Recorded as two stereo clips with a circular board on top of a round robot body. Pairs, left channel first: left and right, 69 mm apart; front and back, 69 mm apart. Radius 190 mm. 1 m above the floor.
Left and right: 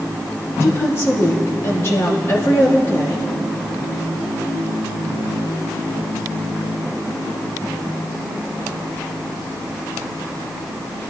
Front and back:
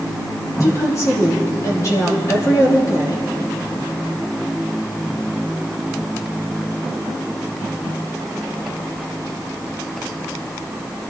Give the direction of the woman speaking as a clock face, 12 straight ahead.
11 o'clock.